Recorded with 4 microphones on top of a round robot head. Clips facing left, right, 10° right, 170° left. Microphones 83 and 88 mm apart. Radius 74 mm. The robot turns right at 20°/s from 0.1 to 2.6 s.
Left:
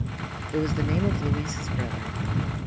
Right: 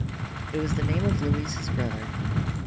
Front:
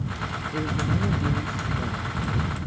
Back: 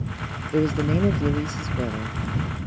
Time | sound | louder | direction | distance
0.5 | a man speaking | left 2 dB, back 8 dB | 170° left | ?